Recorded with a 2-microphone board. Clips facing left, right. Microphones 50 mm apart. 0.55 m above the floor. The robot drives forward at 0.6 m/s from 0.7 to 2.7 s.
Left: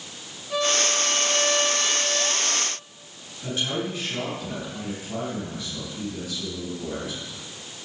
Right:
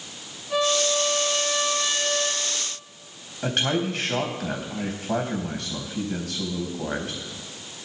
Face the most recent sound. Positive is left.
turn(degrees=-65)  # may be behind; listen again after turning